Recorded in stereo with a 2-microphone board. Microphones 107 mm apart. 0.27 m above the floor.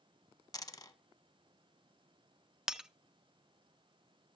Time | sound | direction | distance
0.5 | a dropped coin | 35° left (ahead or behind) | 0.8 m
2.7 | breaking glass | 5° right (ahead or behind) | 0.5 m